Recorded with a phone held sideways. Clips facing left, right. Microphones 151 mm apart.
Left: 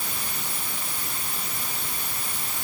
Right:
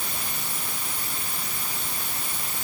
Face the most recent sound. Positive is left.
No sound to turn to.